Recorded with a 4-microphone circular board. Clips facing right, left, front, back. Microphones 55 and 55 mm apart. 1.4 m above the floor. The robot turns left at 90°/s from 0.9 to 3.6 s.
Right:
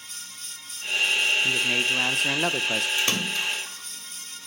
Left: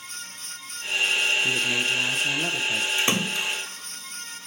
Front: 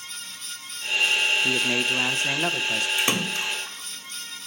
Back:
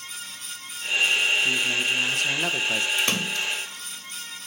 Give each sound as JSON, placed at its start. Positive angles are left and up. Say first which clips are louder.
{"t": 1.4, "sound": "a man speaking", "louder": "even, front 1 dB", "azimuth_deg": 5, "distance_m": 1.0}
{"t": 3.0, "sound": "a splash", "louder": "left 1 dB, front 1 dB", "azimuth_deg": 65, "distance_m": 1.2}